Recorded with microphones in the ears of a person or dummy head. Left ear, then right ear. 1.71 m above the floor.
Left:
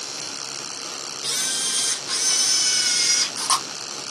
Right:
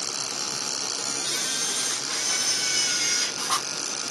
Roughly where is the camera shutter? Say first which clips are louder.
Left 5 dB; left.